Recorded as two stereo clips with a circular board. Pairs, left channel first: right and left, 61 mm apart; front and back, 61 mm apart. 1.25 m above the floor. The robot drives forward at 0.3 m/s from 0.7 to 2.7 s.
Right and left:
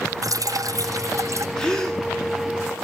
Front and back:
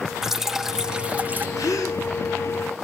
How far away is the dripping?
About 0.5 m.